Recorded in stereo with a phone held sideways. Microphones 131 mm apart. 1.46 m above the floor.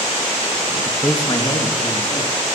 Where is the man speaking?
10° left (ahead or behind), 1.3 m; by 2.3 s 50° left (ahead or behind), 3 m.